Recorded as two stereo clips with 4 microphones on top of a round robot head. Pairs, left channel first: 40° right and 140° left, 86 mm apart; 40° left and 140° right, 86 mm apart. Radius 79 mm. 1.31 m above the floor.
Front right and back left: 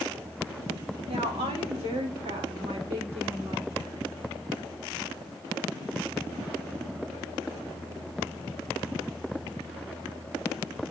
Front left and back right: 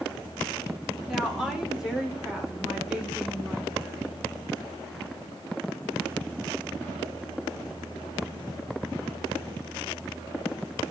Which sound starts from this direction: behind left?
A woman speaking, at 1.1 s.